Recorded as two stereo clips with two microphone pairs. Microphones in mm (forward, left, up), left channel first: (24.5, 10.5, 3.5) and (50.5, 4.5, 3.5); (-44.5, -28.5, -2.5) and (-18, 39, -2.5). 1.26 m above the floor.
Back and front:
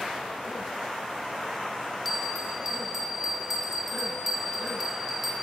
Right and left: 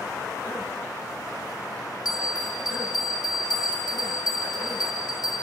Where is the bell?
95° right, 0.9 m.